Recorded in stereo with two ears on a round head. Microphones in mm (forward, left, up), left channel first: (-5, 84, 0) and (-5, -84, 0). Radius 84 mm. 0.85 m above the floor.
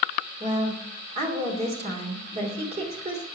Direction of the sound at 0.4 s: 35° right (ahead or behind).